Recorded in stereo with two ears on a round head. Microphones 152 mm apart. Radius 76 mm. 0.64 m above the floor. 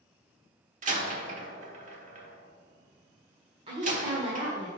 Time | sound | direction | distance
0.8 | a door slam | 45° right (ahead or behind) | 1.3 m
3.7 | a woman speaking | 35° right (ahead or behind) | 1.6 m